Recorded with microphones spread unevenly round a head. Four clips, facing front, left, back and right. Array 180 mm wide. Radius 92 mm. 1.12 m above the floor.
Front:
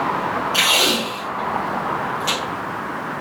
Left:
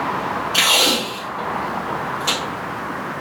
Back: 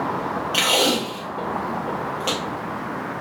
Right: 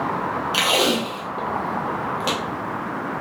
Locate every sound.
0.5 s tape being pulled: 135° right, 0.7 m